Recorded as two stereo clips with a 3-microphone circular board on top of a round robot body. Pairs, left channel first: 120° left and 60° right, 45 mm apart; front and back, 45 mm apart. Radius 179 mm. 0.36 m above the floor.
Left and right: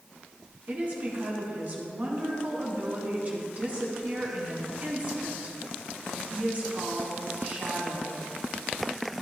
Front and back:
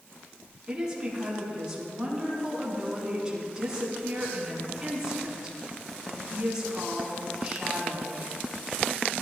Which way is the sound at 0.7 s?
105° right.